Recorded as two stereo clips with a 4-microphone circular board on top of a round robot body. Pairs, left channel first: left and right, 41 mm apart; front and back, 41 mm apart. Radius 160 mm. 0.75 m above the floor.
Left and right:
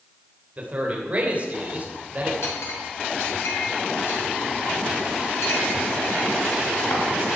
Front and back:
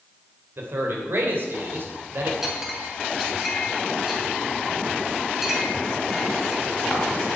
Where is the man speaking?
145° right, 3 m.